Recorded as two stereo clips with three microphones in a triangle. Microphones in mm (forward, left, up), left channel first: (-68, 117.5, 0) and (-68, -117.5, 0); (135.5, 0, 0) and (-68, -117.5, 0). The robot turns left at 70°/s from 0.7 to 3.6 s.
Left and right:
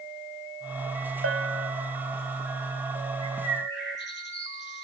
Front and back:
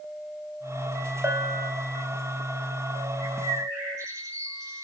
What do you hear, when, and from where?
1.2 s a bell: 70° right, 1.4 m; by 1.7 s 100° right, 1.4 m
3.2 s a bird: 160° left, 6 m; by 4.8 s 135° left, 6 m